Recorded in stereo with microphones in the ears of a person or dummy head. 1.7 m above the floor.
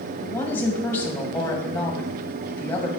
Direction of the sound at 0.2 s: 15° left (ahead or behind).